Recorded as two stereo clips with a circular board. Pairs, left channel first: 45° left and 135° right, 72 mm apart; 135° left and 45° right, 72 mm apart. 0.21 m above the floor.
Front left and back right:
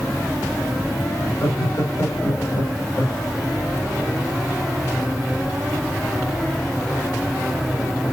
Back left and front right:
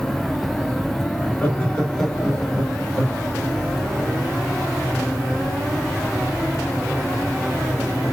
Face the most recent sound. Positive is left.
turn(degrees=25)